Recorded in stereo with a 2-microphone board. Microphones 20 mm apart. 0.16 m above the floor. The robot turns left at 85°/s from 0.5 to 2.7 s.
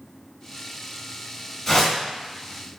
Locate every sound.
1.7 s a whoosh: 5° left (ahead or behind), 1.7 m; by 2.0 s 20° left (ahead or behind), 1.7 m